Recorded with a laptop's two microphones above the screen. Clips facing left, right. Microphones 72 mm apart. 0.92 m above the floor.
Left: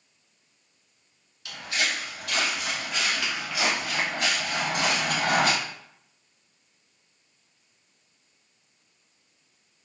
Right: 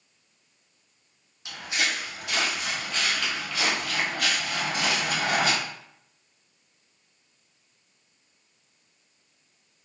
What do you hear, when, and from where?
1.4 s footsteps: 25° right (ahead or behind), 1.7 m; by 5.5 s 50° left (ahead or behind), 1.4 m